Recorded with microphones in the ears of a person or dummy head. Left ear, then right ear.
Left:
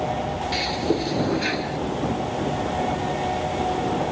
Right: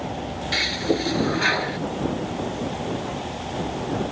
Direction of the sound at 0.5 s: 40° right (ahead or behind).